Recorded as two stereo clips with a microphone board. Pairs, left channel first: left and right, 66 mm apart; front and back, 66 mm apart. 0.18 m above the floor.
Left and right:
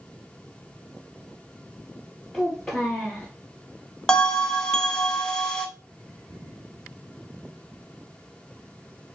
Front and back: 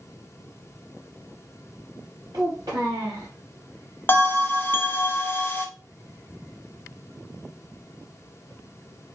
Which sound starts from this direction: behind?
A child speaking, at 2.3 s.